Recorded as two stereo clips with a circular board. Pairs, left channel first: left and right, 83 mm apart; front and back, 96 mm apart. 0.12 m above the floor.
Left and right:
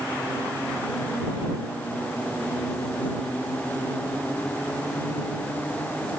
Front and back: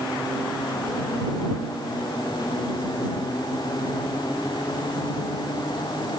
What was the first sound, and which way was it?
Only background noise.